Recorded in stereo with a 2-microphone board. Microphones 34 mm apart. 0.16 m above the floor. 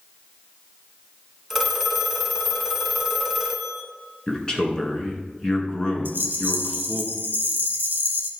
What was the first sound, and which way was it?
A phone ringing, 5° right (ahead or behind).